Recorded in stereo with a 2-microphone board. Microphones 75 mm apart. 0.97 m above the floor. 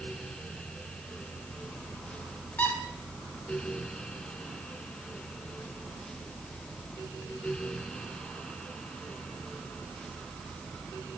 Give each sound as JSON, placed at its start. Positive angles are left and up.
{"t": 2.6, "sound": "a squeak", "side_deg": 20, "distance_m": 0.9}